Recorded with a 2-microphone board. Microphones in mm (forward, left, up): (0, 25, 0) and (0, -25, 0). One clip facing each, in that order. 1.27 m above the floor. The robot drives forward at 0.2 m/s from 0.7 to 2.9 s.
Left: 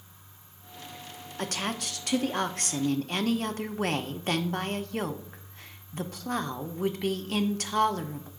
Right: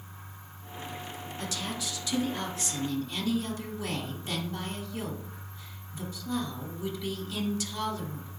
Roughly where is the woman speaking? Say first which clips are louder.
Left 4 dB; left.